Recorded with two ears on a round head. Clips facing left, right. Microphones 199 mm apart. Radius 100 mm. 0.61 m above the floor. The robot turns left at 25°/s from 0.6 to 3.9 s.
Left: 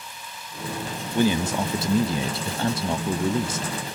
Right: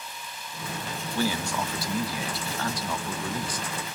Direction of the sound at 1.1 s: 15° left (ahead or behind).